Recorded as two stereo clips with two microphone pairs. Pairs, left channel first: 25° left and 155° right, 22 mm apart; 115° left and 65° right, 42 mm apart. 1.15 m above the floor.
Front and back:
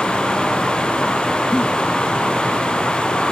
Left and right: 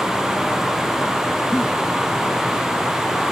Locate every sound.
1.5 s a giggle: 15° left